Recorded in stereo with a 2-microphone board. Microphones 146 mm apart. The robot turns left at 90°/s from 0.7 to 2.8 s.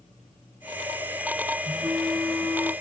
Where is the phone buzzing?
125° right, 1.3 m; by 2.7 s 135° left, 1.3 m.